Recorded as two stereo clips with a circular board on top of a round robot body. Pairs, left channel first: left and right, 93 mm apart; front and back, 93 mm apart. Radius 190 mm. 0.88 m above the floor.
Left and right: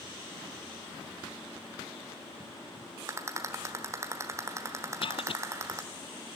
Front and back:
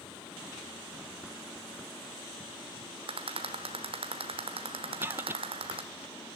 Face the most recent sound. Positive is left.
turn(degrees=115)